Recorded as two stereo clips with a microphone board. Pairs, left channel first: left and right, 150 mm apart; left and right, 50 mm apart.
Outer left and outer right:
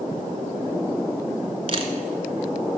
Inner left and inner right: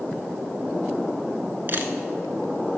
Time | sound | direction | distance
1.7 | a camera shutter | 40° right (ahead or behind) | 0.9 m